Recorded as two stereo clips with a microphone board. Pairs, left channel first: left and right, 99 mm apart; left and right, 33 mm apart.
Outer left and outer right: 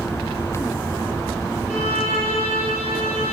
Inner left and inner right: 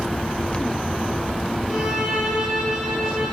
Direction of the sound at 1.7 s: 10° right (ahead or behind).